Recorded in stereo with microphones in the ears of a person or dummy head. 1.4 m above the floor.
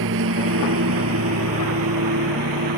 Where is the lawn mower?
70° right (ahead or behind); by 2.8 s 80° right.